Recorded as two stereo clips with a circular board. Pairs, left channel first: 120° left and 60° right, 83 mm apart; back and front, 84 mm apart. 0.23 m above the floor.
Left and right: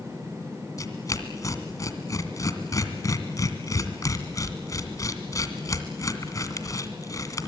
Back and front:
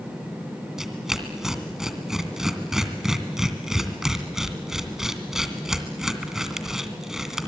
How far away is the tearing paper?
About 2 m.